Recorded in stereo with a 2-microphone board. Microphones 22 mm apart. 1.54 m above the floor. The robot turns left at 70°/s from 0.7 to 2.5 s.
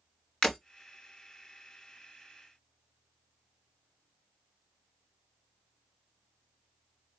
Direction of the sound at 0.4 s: 35° left (ahead or behind).